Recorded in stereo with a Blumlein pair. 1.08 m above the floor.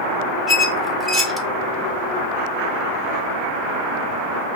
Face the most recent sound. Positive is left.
turn(degrees=5)